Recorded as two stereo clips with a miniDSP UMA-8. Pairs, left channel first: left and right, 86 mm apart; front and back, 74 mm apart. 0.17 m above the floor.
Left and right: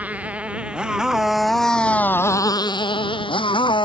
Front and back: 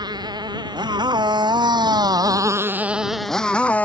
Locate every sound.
0.0 s a motorcycle: 165° right; by 3.9 s 70° left